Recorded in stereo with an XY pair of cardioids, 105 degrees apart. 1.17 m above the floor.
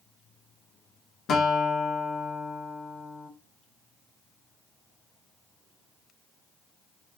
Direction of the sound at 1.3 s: 65° left.